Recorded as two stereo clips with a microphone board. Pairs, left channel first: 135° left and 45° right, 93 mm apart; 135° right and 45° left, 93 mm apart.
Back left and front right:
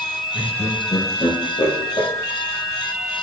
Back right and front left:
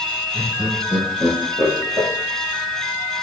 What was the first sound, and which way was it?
Laughter, 115° left.